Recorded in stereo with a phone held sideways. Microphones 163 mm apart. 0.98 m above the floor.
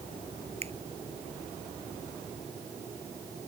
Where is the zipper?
I don't hear a zipper.